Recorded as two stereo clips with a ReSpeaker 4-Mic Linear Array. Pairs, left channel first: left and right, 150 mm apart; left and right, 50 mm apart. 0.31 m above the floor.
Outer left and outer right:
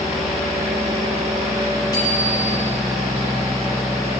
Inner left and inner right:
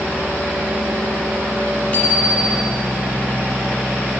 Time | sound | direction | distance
1.9 | a bicycle bell | 25° left (ahead or behind) | 5.5 m